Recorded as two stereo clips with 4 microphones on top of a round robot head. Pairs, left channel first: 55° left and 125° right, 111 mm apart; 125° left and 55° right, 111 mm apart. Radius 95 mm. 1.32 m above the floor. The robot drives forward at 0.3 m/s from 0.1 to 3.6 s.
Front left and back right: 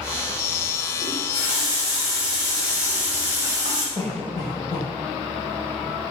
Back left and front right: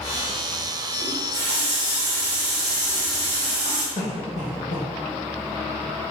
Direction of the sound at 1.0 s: 20° right.